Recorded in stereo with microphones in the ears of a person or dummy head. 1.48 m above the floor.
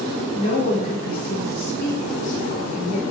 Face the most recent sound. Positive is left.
turn(degrees=80)